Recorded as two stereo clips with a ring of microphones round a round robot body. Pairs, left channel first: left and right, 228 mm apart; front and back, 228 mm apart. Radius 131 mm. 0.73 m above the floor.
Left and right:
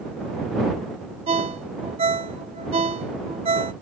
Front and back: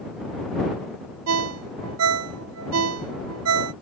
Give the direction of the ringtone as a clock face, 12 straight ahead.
5 o'clock.